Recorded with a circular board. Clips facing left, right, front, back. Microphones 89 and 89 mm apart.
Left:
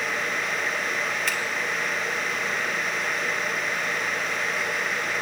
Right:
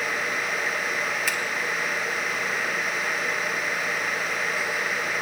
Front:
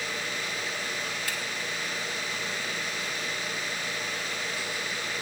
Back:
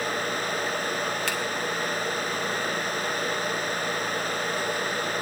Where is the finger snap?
Straight behind, 1.5 m.